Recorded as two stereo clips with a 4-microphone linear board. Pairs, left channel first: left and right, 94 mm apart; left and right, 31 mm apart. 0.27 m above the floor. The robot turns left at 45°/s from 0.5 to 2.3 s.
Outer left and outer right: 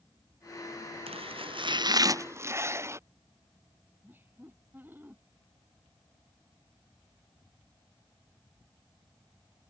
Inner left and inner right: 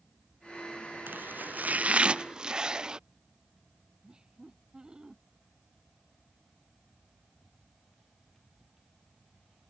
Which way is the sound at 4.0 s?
20° right (ahead or behind).